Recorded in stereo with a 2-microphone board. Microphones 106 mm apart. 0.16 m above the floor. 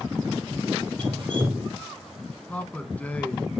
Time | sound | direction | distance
1.0 | dripping | 45° right (ahead or behind) | 3.5 m
2.5 | a man speaking | 10° left (ahead or behind) | 1.1 m